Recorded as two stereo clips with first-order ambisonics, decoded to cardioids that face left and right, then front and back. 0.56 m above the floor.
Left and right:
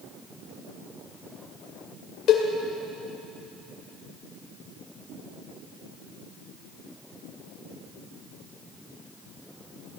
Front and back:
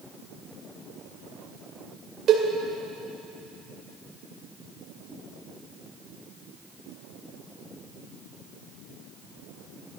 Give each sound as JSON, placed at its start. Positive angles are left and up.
{"t": 2.3, "sound": "a cowbell", "azimuth_deg": 130, "distance_m": 2.0}